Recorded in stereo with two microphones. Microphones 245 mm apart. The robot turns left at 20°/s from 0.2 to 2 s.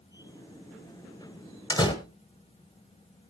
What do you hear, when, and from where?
1.7 s a door slam: 15° left (ahead or behind), 1.4 m; by 1.9 s 20° left (ahead or behind), 1.4 m